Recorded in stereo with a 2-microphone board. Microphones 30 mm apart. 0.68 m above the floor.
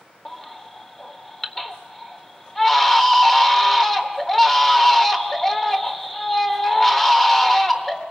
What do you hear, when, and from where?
0.2 s a baby crying: 15° left (ahead or behind), 1.4 m